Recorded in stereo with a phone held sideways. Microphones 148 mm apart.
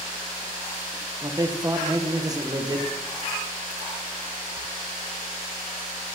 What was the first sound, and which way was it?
A man speaking, 25° right (ahead or behind).